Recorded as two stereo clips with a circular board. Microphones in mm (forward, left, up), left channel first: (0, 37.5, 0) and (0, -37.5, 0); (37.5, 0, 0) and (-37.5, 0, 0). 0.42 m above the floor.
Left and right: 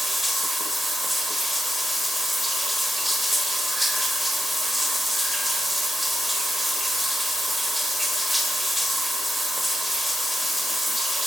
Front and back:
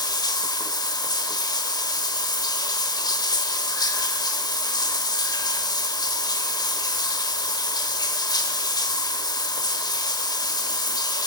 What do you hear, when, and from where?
0.0 s running water: straight ahead, 1.1 m